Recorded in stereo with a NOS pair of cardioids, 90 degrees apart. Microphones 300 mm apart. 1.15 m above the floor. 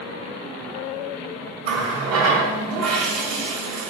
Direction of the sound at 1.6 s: 55° right.